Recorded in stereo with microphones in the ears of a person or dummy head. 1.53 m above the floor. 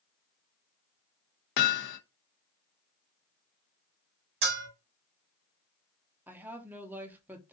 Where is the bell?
70° right (ahead or behind), 2.5 m.